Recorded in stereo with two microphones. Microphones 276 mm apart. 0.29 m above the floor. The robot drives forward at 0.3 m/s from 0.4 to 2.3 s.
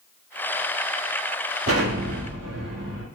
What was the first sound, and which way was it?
An explosion, 55° right (ahead or behind).